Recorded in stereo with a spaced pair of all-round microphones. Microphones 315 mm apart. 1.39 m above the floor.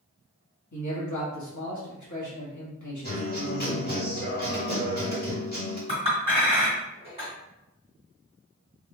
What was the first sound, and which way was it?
A man speaking, 70° left (ahead or behind).